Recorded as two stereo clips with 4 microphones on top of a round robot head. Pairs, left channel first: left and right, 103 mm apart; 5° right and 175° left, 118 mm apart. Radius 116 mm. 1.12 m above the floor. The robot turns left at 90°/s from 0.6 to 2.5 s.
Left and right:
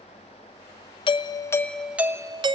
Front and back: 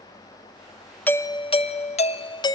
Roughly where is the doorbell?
Left.